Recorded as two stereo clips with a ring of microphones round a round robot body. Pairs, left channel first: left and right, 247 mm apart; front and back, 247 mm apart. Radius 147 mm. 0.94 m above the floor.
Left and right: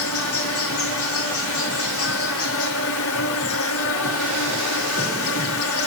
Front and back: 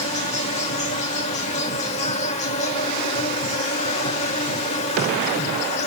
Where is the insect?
65° left, 0.9 m.